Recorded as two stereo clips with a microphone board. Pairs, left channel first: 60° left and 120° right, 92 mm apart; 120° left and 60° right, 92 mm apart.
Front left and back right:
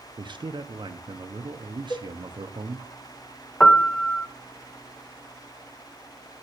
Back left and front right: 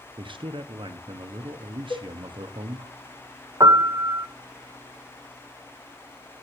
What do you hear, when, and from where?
0.2 s a man speaking: 90° right, 0.8 m
1.9 s a cowbell: 95° left, 3 m
3.6 s a piano: 15° right, 0.7 m